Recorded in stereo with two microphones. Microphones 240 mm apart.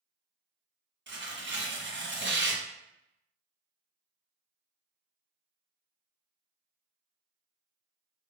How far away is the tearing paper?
About 0.8 m.